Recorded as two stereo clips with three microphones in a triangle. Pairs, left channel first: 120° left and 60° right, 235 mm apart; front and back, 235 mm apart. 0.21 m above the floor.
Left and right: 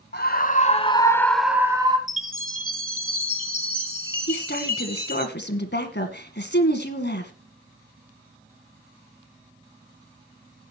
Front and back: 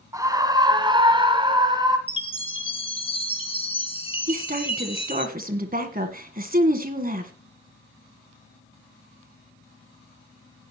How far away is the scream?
About 1.4 m.